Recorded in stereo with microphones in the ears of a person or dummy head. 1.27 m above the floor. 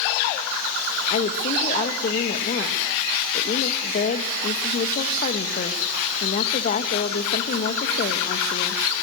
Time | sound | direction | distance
1.1 | a woman speaking | 35° left (ahead or behind) | 1.6 m